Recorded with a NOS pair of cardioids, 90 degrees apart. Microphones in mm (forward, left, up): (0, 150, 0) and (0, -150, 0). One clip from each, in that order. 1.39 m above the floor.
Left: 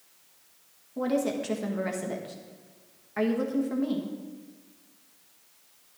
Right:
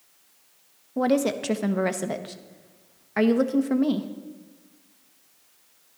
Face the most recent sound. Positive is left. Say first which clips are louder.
# right 5 dB
turn(degrees=-45)